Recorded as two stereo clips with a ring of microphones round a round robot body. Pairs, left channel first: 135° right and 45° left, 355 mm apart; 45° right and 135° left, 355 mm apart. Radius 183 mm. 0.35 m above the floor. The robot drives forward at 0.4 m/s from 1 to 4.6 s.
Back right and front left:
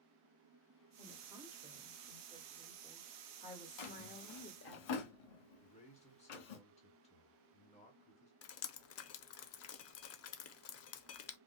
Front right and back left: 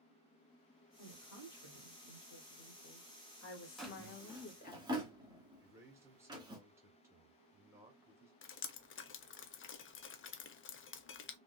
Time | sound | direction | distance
1.0 | a woman speaking | 35° right | 1.9 m
3.8 | a drawer | 135° right | 0.9 m
5.6 | a man speaking | 160° right | 1.4 m
8.4 | dripping | 95° right | 0.6 m